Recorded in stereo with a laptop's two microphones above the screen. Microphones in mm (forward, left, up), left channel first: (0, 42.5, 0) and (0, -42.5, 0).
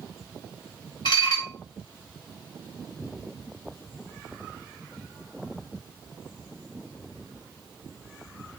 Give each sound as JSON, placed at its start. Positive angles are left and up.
{"t": 1.1, "sound": "dishes clattering", "side_deg": 65, "distance_m": 1.2}